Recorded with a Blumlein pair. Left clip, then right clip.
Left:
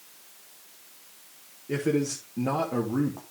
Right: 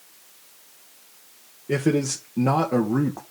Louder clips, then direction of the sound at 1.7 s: Right 4 dB; 20° right.